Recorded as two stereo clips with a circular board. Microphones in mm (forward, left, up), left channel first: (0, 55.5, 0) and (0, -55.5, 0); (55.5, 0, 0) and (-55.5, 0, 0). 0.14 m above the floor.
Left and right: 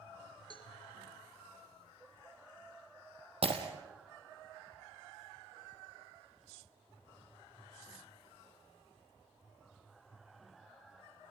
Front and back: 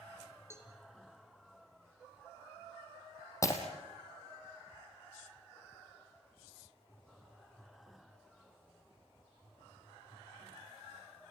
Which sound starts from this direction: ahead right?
Breaking glass, at 3.4 s.